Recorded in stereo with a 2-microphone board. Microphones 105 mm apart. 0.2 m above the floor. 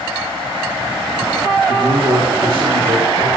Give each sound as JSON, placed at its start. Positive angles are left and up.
{"t": 1.7, "sound": "a man speaking", "side_deg": -45, "distance_m": 5.0}